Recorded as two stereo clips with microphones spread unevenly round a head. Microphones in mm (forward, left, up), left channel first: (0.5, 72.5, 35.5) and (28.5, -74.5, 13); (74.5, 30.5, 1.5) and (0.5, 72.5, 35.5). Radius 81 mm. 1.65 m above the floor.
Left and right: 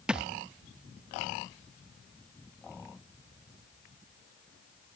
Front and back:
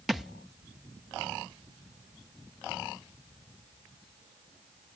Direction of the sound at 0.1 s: 175° right.